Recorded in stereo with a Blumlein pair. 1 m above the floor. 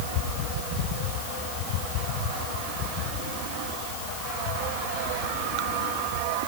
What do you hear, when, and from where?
Only background noise.